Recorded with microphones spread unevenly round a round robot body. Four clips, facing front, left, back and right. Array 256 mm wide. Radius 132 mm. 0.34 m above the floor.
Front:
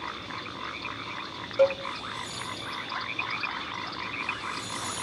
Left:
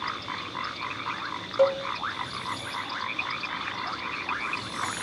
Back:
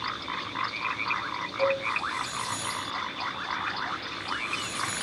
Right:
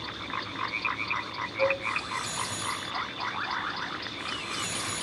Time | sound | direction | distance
1.6 | a cowbell | 55° left | 1.4 m